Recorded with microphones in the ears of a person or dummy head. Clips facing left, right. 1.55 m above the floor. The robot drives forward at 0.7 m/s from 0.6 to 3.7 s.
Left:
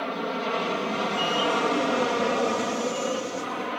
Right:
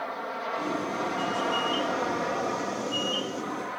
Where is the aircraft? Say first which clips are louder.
Left 5 dB; 40° left (ahead or behind).